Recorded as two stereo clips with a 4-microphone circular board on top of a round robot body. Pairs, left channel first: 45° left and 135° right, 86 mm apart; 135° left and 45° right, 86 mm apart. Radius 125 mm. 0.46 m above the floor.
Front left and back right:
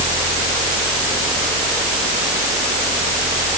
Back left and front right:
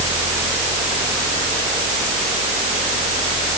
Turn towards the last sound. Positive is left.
No sound to turn to.